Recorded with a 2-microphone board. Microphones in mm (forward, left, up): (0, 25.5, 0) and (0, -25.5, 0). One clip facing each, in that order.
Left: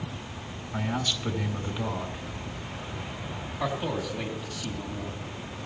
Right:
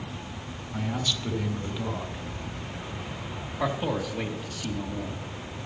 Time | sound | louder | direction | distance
0.7 | a man speaking | left 1 dB | 10° left (ahead or behind) | 3 m
3.6 | a man speaking | right 2 dB | 25° right (ahead or behind) | 4 m